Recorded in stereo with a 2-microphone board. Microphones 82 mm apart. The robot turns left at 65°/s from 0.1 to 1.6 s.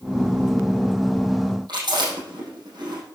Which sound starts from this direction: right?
Chewing, at 1.7 s.